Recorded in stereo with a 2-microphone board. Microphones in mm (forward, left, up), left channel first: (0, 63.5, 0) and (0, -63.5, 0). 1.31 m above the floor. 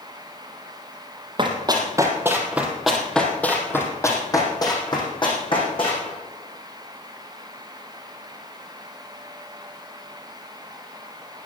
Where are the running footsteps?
35° right (ahead or behind), 2.5 m; by 6.1 s 45° left (ahead or behind), 5 m.